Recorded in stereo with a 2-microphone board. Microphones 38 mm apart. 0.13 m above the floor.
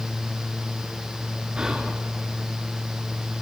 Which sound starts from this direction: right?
Whispering, at 1.6 s.